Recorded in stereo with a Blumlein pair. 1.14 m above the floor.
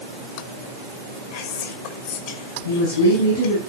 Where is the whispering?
50° left, 2.5 m.